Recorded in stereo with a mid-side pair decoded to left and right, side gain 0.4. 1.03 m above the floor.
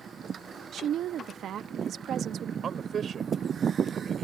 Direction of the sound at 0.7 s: 70° right.